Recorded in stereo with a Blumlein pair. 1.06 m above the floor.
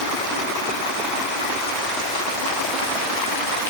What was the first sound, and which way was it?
Only background noise.